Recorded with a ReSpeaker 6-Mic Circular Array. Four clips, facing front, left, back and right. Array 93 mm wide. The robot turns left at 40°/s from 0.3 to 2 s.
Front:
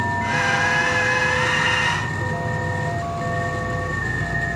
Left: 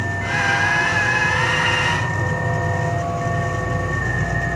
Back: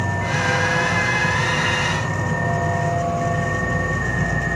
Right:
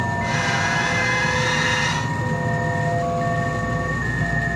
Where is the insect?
155° right, 1.0 m; by 4.6 s 135° left, 1.0 m.